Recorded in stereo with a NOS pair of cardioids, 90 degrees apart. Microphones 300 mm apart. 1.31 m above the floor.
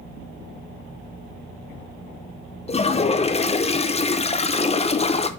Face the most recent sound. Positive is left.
turn(degrees=20)